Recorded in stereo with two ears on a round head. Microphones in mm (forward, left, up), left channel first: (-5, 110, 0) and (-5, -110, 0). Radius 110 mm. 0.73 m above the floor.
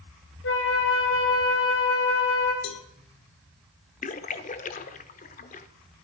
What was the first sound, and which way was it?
A flute, 55° left (ahead or behind).